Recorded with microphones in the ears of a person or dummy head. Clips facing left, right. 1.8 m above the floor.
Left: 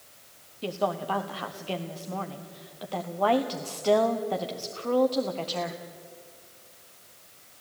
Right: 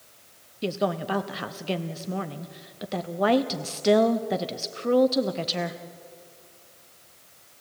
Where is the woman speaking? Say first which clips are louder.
Right 2 dB; 35° right (ahead or behind), 0.9 m.